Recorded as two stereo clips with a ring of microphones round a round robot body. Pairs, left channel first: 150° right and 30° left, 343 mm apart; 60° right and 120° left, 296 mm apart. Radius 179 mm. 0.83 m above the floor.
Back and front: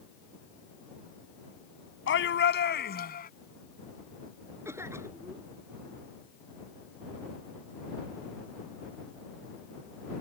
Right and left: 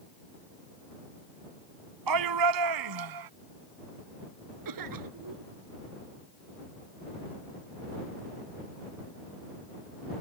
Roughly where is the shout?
Behind left.